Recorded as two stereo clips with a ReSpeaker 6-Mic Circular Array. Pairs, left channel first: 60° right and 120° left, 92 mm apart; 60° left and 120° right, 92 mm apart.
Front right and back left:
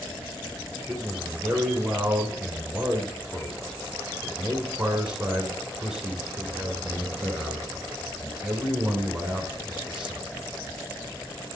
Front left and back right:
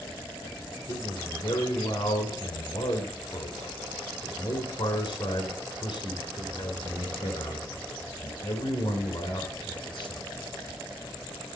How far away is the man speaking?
About 2.5 m.